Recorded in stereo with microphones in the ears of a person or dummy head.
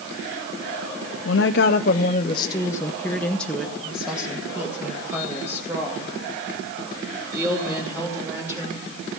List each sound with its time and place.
1.2 s a woman speaking: 60° left (ahead or behind), 0.7 m; by 8.8 s 15° right (ahead or behind), 4.5 m